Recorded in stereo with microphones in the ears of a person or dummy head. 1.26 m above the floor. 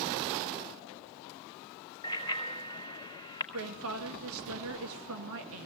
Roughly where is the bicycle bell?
Left.